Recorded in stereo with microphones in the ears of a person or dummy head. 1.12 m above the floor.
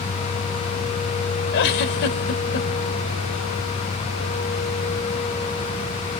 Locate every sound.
1.5 s a giggle: 60° left (ahead or behind), 1.5 m